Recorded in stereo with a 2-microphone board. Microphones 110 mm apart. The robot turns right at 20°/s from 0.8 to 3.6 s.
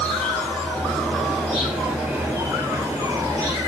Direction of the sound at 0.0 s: 165° left.